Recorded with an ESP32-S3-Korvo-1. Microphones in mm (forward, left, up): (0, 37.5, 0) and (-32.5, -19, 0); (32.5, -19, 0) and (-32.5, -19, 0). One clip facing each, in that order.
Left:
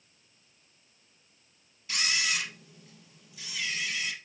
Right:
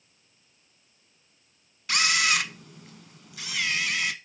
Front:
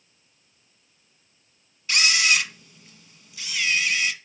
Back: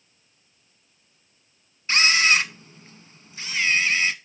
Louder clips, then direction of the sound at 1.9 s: Right 7 dB, back 3 dB; 125° right.